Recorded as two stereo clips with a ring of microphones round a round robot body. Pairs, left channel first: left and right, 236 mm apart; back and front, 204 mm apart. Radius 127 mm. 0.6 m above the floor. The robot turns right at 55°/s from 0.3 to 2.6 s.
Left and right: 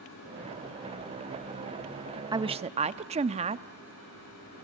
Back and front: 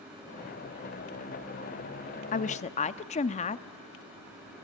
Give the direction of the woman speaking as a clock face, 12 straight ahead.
5 o'clock.